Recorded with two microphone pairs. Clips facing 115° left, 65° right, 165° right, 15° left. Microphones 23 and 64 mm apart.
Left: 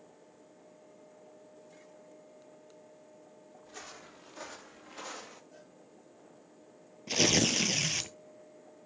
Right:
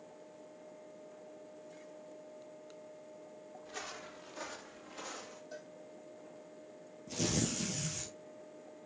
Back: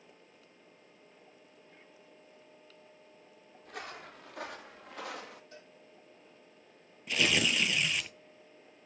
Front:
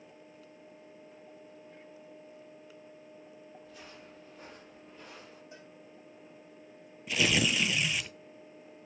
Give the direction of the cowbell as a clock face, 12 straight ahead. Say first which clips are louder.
Right 6 dB, front 2 dB; 2 o'clock.